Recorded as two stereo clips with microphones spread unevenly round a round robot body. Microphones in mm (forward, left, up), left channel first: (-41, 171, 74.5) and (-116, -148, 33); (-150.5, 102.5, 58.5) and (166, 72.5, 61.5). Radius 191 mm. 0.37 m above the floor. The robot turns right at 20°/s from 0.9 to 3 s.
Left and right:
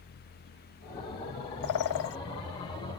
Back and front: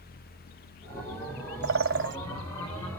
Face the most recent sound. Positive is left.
turn(degrees=65)